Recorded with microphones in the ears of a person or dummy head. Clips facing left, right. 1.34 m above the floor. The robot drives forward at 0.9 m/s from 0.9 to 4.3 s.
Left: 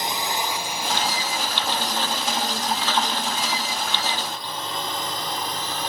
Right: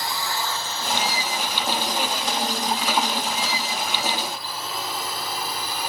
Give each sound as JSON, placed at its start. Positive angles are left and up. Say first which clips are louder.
{"t": 0.0, "sound": "a drone", "louder": "left 2 dB", "side_deg": 20}